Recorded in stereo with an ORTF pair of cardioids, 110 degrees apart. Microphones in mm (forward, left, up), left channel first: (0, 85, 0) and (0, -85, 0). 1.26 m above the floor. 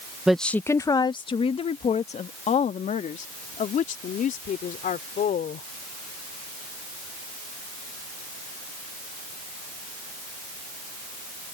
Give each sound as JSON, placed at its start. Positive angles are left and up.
{"t": 0.3, "sound": "a woman speaking", "azimuth_deg": -5}